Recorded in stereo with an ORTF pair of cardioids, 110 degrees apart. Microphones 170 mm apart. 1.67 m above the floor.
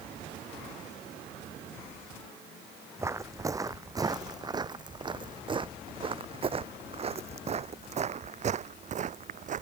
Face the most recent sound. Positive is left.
turn(degrees=-50)